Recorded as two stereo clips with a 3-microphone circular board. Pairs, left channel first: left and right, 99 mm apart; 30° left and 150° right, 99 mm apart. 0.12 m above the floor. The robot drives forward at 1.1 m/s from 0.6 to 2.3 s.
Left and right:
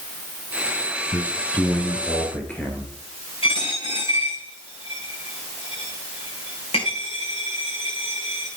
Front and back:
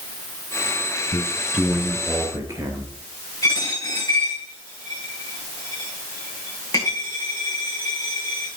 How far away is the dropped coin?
About 6 m.